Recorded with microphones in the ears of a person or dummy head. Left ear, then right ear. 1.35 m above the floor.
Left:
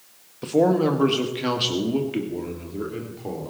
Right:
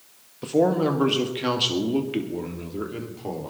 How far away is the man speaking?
About 1.5 m.